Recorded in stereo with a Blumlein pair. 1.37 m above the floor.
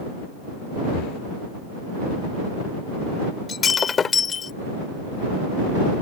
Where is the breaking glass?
20° left.